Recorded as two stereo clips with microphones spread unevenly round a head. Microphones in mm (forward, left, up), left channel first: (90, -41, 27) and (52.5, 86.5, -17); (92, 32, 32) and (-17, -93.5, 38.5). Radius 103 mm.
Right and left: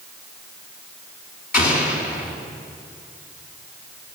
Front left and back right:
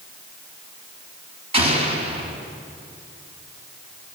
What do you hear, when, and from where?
1.5 s an explosion: 75° right, 5.5 m